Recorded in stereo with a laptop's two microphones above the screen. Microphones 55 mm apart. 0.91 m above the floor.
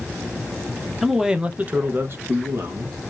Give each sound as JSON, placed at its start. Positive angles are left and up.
{"t": 1.0, "sound": "a man speaking", "side_deg": -5, "distance_m": 0.7}